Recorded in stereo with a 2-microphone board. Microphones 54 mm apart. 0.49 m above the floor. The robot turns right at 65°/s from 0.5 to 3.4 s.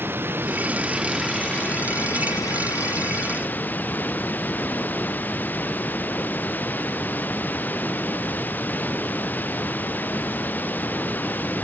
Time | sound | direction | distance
0.0 | running water | 40° right | ?